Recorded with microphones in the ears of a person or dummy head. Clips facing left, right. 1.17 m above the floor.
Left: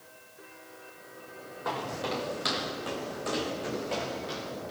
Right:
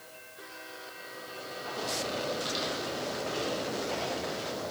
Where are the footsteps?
75° left (ahead or behind), 5.5 m; by 4.7 s 30° left (ahead or behind), 6.5 m.